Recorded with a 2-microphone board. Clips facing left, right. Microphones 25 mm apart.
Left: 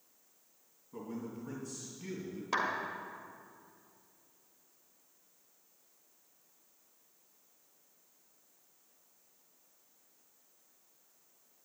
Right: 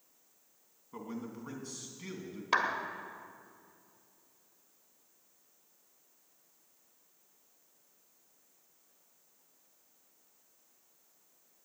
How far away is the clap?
About 1.4 m.